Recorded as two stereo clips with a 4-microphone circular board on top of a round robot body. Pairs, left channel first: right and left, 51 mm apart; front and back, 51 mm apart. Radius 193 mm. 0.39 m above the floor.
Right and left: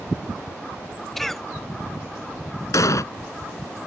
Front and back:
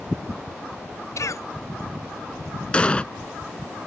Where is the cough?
5° right.